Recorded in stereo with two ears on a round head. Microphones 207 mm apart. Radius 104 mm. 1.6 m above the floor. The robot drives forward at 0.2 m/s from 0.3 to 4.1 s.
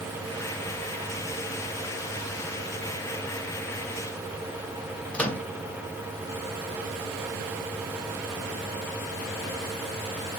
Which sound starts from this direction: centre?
A microwave, at 5.1 s.